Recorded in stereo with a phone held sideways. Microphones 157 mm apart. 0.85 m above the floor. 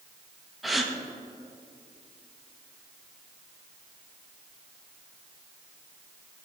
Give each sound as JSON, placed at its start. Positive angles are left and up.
{"t": 0.6, "sound": "a gasp", "side_deg": 0, "distance_m": 0.7}